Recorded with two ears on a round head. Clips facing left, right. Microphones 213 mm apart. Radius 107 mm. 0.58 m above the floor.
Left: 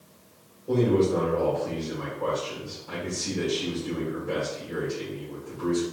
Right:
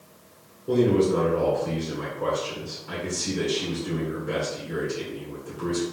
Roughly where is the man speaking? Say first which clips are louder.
Right 2 dB; right.